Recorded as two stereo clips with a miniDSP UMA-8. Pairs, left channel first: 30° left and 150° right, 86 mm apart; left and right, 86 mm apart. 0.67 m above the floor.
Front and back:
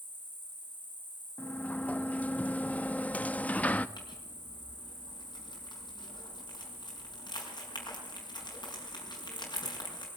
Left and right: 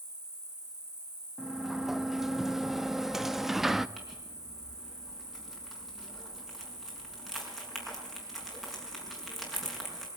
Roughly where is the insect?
Behind right.